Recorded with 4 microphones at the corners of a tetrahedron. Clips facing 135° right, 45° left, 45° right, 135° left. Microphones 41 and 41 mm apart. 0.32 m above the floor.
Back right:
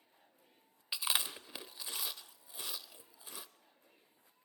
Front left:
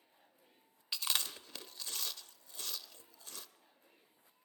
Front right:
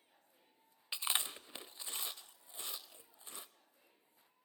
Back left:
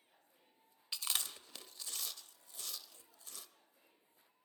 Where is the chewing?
75° right, 0.7 m.